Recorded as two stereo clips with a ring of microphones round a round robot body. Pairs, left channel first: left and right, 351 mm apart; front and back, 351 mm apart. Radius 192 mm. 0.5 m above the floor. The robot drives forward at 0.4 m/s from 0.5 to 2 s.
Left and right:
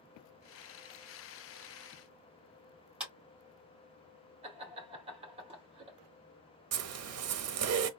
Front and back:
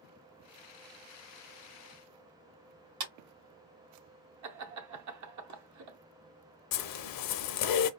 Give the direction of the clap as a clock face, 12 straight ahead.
6 o'clock.